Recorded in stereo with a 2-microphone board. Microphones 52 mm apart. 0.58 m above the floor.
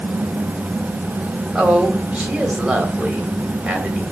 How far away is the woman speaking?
About 2.5 m.